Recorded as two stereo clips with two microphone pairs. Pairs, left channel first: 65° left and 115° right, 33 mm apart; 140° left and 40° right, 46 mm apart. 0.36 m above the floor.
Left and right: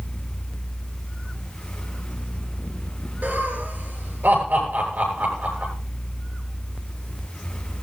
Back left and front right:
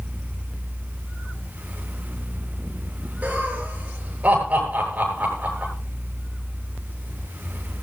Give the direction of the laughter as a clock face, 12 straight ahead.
3 o'clock.